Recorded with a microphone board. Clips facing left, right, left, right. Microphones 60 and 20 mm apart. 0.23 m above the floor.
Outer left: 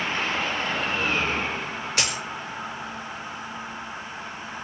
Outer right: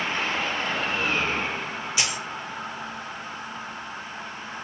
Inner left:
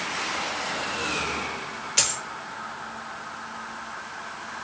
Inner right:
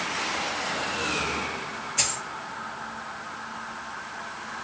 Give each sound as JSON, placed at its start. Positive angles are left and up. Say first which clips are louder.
{"t": 2.0, "sound": "a dropped coin", "louder": "outer left 1 dB, inner left 3 dB", "side_deg": 55, "distance_m": 1.1}